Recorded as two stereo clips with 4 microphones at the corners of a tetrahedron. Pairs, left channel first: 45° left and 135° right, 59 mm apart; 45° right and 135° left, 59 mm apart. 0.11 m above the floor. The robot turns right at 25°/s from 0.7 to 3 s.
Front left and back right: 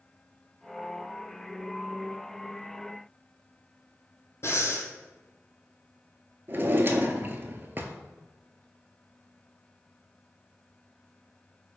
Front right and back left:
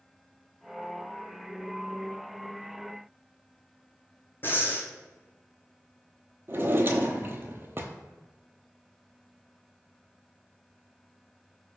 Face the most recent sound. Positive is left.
turn(degrees=180)